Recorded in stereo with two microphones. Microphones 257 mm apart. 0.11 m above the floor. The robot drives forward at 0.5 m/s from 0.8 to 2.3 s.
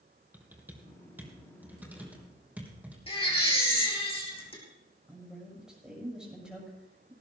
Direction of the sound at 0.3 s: 5° right (ahead or behind).